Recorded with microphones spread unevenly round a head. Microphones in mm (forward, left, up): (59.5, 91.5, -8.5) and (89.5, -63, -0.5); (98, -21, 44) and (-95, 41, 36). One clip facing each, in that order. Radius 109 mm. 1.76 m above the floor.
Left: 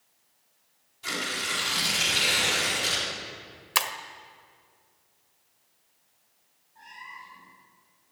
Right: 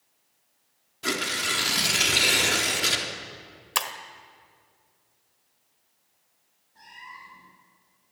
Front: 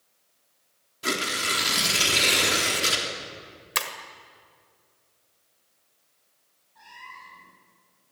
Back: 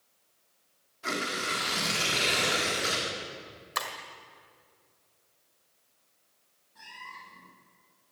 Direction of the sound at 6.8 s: 140° right.